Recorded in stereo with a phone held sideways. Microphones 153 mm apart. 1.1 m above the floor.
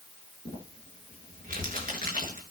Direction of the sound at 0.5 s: 60° right (ahead or behind).